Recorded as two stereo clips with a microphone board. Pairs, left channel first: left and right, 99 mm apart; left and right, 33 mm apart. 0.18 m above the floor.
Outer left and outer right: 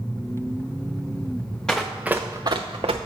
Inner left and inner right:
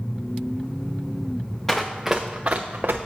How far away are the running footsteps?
About 1.0 m.